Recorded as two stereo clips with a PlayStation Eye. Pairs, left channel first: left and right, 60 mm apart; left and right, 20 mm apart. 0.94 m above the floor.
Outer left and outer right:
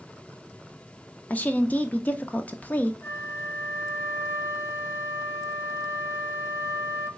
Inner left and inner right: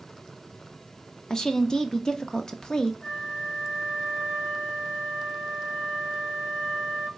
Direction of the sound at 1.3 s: 25° left (ahead or behind).